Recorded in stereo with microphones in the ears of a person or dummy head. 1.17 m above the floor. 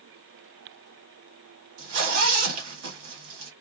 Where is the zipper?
80° right, 1.5 m.